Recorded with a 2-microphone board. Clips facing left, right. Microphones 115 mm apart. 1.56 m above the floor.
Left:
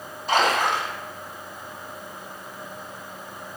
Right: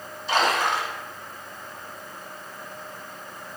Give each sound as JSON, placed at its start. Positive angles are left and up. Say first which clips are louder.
{"t": 0.3, "sound": "a splash", "louder": "left 2 dB", "side_deg": 45, "distance_m": 1.8}